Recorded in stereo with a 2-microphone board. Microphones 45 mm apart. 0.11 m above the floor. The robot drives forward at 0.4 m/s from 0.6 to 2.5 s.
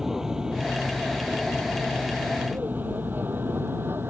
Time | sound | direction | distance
0.0 | an aircraft | 10° right (ahead or behind) | ?